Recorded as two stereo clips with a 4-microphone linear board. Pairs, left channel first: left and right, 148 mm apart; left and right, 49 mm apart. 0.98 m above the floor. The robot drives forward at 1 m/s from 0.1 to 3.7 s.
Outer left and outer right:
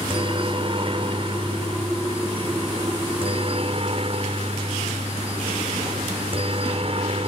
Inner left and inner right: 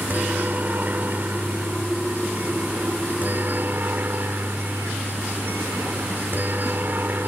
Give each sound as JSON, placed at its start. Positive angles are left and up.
{"t": 0.0, "sound": "a helicopter", "side_deg": -40}